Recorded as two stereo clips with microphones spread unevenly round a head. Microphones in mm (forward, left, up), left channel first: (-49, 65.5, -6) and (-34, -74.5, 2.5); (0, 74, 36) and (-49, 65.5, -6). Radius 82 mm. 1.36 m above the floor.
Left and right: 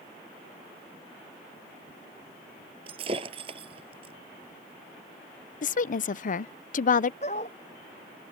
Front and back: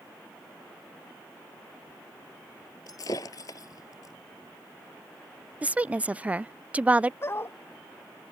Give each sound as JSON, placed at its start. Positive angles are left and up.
{"t": 2.9, "sound": "breaking glass", "azimuth_deg": -25}
{"t": 5.6, "sound": "a woman speaking", "azimuth_deg": 125}
{"t": 7.2, "sound": "a dog barking", "azimuth_deg": 40}